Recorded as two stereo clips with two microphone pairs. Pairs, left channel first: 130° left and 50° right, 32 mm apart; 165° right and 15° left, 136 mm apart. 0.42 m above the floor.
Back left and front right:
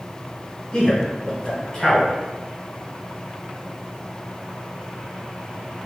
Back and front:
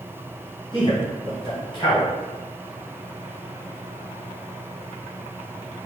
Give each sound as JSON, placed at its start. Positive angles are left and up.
{"t": 0.7, "sound": "a man speaking", "azimuth_deg": 180, "distance_m": 1.7}